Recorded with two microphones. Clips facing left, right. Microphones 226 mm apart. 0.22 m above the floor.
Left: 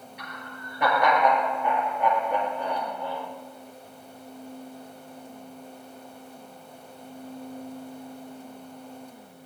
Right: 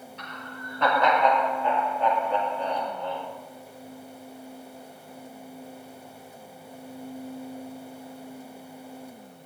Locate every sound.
0.2 s laughter: 15° left (ahead or behind), 5.5 m